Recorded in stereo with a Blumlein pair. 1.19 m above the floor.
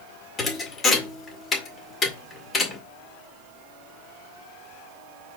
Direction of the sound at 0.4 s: 20° left.